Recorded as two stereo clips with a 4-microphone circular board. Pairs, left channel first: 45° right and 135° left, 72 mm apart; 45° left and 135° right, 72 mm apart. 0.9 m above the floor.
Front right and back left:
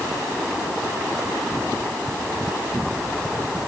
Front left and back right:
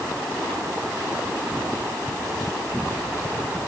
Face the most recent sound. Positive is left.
No sound to turn to.